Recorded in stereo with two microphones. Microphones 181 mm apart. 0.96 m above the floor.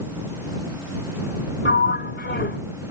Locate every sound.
1.6 s a sliding door: 80° left